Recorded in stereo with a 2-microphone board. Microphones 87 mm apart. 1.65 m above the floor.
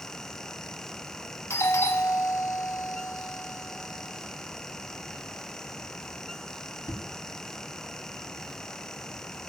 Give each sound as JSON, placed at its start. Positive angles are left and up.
{"t": 1.5, "sound": "a doorbell", "side_deg": 30, "distance_m": 2.5}